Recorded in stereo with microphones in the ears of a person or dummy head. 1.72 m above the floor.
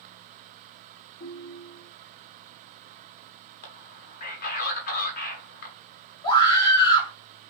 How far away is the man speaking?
About 1.4 m.